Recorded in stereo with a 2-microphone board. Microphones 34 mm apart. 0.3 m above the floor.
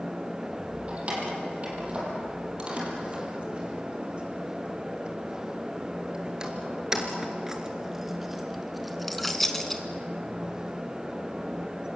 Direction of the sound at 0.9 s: 35° right (ahead or behind).